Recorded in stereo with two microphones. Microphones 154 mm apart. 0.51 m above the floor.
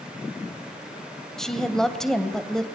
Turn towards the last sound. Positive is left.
turn(degrees=5)  # may be behind; listen again after turning